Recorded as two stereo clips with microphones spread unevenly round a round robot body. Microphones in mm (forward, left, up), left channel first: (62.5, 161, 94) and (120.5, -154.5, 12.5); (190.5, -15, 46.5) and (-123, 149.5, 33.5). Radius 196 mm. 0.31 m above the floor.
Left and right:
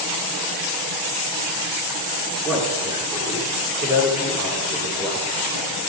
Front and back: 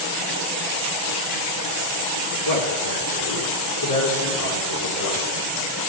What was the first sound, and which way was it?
A man speaking, straight ahead.